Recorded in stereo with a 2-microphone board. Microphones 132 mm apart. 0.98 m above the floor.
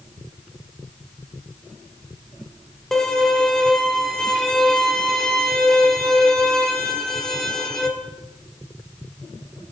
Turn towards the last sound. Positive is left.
turn(degrees=5)  # may be behind; listen again after turning